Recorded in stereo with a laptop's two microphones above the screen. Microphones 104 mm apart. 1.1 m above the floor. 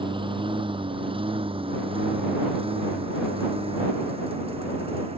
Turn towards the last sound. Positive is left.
turn(degrees=-60)  # may be behind; listen again after turning